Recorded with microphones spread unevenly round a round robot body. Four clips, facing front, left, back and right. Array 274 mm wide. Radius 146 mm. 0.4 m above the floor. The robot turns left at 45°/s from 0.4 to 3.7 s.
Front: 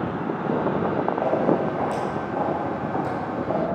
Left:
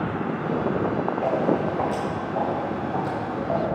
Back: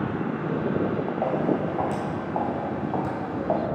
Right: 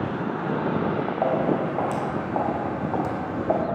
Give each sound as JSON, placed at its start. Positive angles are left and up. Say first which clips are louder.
{"t": 1.2, "sound": "footsteps", "louder": "right 1 dB, front 2 dB", "azimuth_deg": -65, "distance_m": 2.5}